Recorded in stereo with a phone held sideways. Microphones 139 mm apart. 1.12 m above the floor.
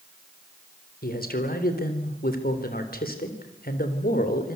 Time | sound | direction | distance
1.0 | a man speaking | 85° left | 3.5 m